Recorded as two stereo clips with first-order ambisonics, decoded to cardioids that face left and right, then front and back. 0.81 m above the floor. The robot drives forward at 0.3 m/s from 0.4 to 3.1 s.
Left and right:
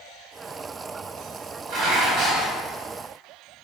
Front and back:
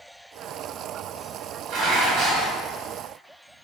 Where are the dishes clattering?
130° right, 3.5 m.